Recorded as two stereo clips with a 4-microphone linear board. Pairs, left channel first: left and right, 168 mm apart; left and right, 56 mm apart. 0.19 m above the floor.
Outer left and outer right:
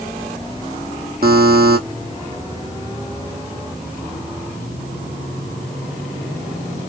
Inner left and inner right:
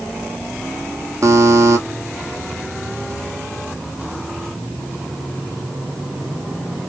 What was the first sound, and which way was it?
A buzzer, 65° right (ahead or behind).